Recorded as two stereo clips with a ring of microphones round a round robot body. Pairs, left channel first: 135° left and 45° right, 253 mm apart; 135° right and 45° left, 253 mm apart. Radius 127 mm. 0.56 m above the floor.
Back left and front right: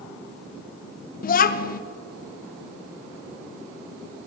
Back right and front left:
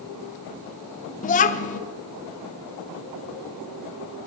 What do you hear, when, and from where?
1.2 s a child speaking: 175° left, 0.5 m